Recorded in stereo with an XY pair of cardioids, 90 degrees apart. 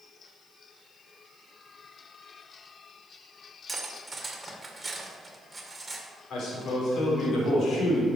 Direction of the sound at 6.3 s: 70° left.